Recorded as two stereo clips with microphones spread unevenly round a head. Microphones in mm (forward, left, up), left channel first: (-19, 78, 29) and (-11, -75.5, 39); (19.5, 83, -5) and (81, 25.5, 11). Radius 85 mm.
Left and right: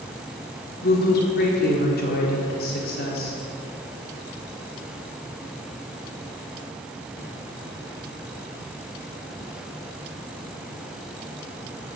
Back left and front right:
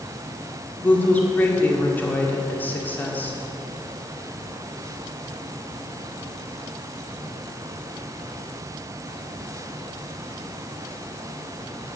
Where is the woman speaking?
65° left, 1.9 m.